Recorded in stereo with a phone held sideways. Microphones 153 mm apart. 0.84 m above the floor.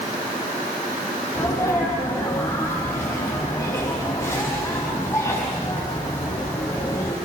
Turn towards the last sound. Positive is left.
turn(degrees=20)  # may be behind; listen again after turning